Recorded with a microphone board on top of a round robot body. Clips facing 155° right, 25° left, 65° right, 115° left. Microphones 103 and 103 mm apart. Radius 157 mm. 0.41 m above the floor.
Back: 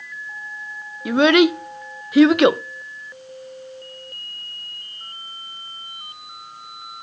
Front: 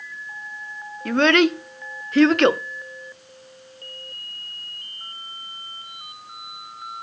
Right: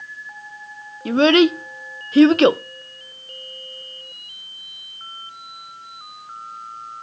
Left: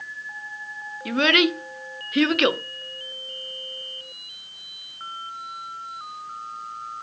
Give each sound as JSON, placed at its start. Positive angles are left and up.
{"t": 1.1, "sound": "a child speaking", "azimuth_deg": -85, "distance_m": 0.5}